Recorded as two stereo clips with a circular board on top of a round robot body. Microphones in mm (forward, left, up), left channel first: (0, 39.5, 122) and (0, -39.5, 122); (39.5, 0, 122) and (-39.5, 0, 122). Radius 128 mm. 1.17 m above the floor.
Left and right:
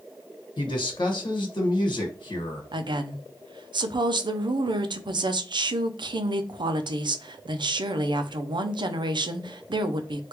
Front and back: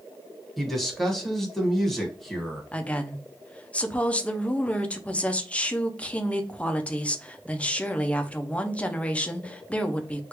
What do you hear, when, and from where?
0.6 s a man speaking: 90° left, 1.4 m
2.7 s a woman speaking: 75° right, 0.6 m